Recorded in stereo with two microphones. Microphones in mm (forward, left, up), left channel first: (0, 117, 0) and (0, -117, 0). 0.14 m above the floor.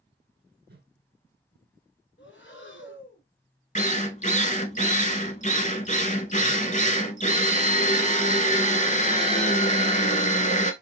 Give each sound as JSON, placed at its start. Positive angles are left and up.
{"t": 0.7, "sound": "a whoosh", "side_deg": -45, "distance_m": 1.1}
{"t": 2.2, "sound": "breathing", "side_deg": 55, "distance_m": 0.9}
{"t": 3.8, "sound": "a drill", "side_deg": 30, "distance_m": 0.6}